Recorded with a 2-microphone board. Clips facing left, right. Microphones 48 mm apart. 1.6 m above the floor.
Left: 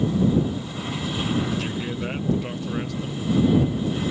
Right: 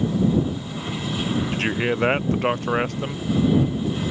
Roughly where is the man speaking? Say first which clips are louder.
Right 5 dB; right.